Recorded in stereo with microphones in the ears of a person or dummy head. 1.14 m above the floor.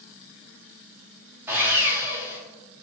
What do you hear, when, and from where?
1.5 s sawing: 15° right (ahead or behind), 0.5 m